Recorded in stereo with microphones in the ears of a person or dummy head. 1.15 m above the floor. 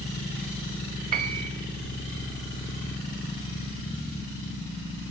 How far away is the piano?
About 0.7 m.